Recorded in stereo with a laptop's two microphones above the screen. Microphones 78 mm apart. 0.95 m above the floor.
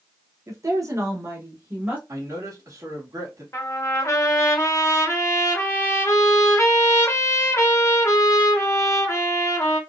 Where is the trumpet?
40° left (ahead or behind), 0.9 m.